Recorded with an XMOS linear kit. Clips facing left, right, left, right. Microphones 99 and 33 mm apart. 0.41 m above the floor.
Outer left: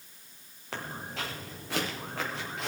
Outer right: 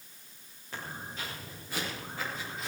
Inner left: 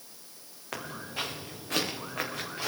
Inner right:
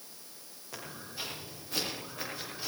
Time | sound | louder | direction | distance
0.7 | footsteps | outer left 3 dB, inner left 7 dB | 75° left (ahead or behind) | 4.5 m